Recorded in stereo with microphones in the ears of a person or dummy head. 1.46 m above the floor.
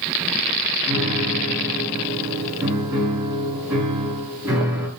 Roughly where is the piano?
Centre.